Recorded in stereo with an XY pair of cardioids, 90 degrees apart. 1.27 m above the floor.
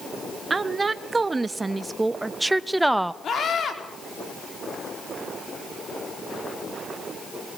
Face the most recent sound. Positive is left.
turn(degrees=55)